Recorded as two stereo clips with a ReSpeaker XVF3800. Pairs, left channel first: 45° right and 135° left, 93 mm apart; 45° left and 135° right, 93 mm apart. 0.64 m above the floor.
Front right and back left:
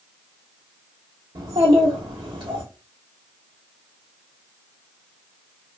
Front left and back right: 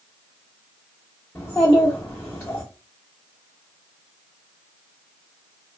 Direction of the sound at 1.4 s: 120° left.